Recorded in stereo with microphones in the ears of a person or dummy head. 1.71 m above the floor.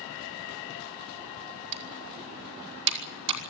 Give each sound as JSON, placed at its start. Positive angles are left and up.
{"t": 1.7, "sound": "typing on a keyboard", "side_deg": -65, "distance_m": 5.0}